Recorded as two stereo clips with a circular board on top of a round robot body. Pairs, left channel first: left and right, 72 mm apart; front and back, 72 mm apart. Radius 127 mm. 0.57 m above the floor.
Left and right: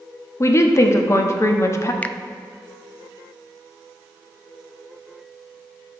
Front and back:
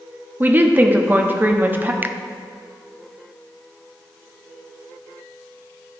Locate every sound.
0.4 s a woman speaking: 125° left, 1.1 m
2.0 s a finger snap: 145° left, 0.6 m